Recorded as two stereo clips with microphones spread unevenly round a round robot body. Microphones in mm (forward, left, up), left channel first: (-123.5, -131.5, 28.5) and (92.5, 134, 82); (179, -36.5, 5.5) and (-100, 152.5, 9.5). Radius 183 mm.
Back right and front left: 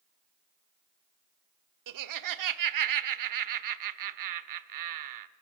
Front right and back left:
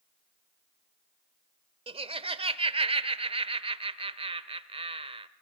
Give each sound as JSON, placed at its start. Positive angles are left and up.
{"t": 1.9, "sound": "laughter", "azimuth_deg": 75, "distance_m": 1.5}